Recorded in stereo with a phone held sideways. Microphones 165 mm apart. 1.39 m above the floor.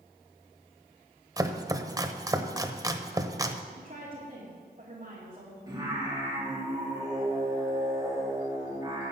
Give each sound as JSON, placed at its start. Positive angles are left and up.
{"t": 1.4, "sound": "chopping", "side_deg": -20, "distance_m": 0.8}
{"t": 3.8, "sound": "a woman speaking", "side_deg": -50, "distance_m": 3.0}
{"t": 5.7, "sound": "singing", "side_deg": -20, "distance_m": 3.5}